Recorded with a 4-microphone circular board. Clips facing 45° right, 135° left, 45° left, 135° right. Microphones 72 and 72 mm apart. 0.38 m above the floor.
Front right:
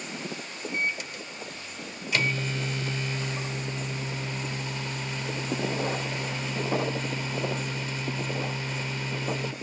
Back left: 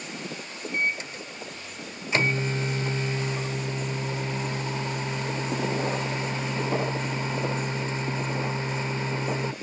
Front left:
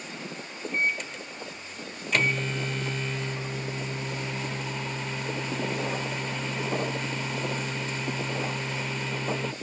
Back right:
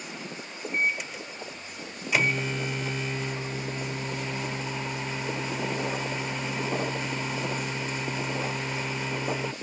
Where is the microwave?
150° left, 0.8 m.